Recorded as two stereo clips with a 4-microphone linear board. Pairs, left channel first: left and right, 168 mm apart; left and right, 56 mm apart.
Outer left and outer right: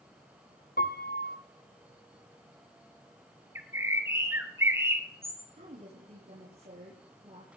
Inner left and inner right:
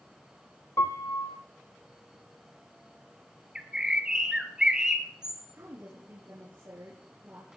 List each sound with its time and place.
0.8 s a piano: 65° left (ahead or behind), 1.3 m
3.5 s a bird: 15° right (ahead or behind), 2 m
5.5 s a woman speaking: 45° right (ahead or behind), 5.5 m